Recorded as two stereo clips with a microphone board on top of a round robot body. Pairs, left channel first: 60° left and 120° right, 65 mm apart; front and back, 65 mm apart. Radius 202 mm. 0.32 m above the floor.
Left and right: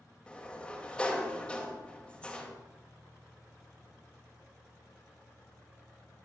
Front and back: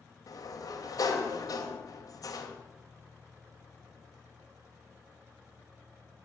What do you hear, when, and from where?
0.3 s a sliding door: 15° right, 2.5 m